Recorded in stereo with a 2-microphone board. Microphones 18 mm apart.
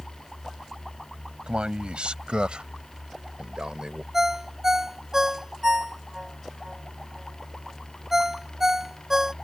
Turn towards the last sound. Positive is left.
turn(degrees=-20)  # may be behind; listen again after turning